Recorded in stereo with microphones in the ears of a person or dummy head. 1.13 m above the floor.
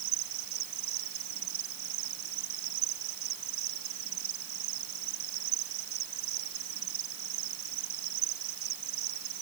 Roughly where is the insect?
Right.